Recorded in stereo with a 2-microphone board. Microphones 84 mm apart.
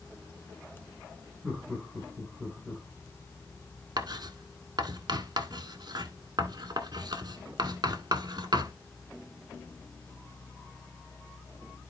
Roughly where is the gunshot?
I don't hear a gunshot.